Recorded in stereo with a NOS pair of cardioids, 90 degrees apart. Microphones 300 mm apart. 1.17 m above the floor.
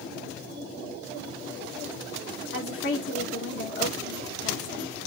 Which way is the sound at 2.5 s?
45° left.